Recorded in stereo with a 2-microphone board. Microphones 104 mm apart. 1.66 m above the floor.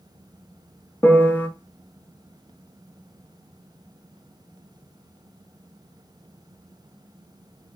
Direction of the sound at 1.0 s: 15° left (ahead or behind).